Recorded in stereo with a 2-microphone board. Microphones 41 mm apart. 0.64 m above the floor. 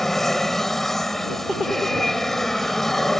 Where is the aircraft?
5° left (ahead or behind).